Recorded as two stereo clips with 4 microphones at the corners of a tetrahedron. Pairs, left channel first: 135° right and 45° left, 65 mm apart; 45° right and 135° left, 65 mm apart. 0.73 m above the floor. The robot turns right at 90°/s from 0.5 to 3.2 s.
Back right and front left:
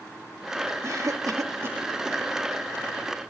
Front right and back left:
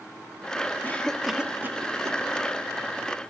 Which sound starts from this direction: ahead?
A cough, at 0.8 s.